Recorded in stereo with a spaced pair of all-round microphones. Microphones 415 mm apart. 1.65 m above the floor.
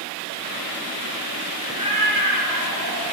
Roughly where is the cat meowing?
Centre.